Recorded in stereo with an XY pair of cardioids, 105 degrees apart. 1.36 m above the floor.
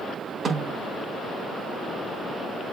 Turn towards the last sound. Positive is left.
turn(degrees=-40)